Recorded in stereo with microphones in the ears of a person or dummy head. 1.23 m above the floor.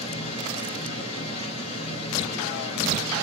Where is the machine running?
35° left (ahead or behind), 1.2 m.